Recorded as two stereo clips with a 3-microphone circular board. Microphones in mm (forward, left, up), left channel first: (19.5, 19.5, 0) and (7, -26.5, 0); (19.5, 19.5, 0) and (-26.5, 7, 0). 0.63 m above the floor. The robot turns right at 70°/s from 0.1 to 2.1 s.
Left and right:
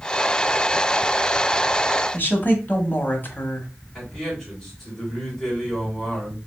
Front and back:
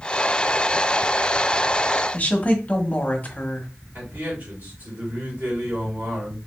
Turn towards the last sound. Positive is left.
turn(degrees=155)